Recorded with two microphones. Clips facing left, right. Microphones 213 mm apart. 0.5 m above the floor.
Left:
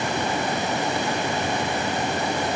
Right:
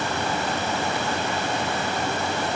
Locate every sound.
Only background noise.